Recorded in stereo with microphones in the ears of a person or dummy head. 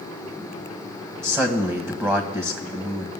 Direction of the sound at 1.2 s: 20° right (ahead or behind).